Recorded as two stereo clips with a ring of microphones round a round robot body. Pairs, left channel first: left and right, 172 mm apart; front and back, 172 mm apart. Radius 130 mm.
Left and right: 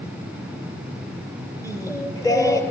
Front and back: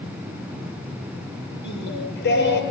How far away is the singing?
About 7 m.